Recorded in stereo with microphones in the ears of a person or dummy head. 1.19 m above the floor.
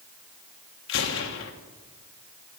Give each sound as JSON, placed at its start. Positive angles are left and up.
{"t": 0.9, "sound": "a gunshot", "side_deg": 60, "distance_m": 1.5}